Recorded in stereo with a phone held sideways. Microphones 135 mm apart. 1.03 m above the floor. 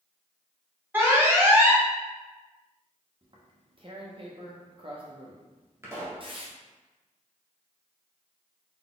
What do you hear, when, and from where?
0.9 s an alarm: 15° right (ahead or behind), 1.0 m
3.2 s tearing paper: 40° right (ahead or behind), 0.7 m
5.8 s a pop: 20° right (ahead or behind), 1.1 m